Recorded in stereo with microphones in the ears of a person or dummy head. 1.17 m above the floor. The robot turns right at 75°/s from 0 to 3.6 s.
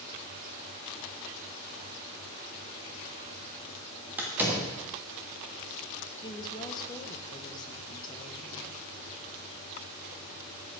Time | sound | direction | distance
4.2 | a door slam | 10° right (ahead or behind) | 1.4 m
6.2 | a woman speaking | 25° left (ahead or behind) | 0.8 m